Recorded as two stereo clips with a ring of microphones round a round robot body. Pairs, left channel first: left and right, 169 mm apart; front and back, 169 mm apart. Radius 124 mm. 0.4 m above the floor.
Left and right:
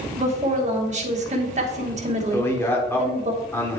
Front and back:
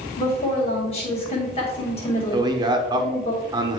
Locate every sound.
0.2 s a woman speaking: 55° right, 1.8 m
2.3 s a man speaking: 150° left, 0.9 m